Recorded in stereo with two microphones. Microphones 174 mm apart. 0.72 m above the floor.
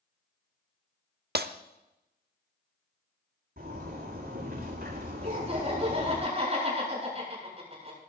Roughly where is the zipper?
Right.